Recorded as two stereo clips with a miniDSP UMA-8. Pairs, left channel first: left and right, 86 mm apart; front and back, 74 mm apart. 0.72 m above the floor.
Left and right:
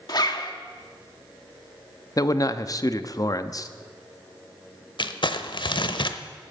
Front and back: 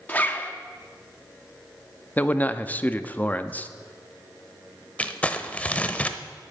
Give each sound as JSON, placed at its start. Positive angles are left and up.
{"t": 0.1, "sound": "a zipper", "azimuth_deg": 65, "distance_m": 1.2}
{"t": 2.2, "sound": "a man speaking", "azimuth_deg": 60, "distance_m": 0.7}
{"t": 5.0, "sound": "crumpling", "azimuth_deg": 70, "distance_m": 0.8}